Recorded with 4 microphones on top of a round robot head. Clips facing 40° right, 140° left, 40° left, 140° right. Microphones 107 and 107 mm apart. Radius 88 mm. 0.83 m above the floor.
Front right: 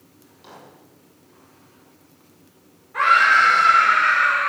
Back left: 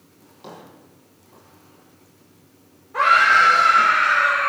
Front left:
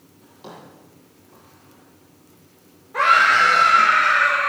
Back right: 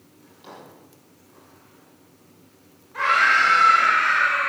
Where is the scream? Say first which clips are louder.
Back left 1 dB, front left 4 dB; 80° left, 4.5 m.